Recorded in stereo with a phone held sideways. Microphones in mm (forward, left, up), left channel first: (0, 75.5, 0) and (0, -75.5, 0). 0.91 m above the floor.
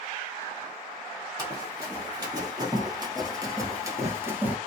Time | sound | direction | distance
1.4 | running footsteps | 25° right (ahead or behind) | 1.8 m